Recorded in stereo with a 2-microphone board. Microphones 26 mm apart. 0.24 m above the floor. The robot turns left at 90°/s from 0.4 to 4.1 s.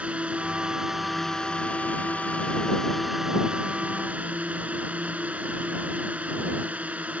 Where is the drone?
115° right; by 7.2 s 90° right.